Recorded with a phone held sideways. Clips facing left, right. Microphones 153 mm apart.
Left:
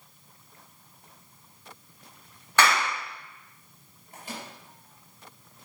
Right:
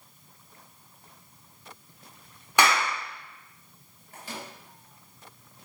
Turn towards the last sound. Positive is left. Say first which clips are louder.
# even
turn(degrees=20)  # may be behind; listen again after turning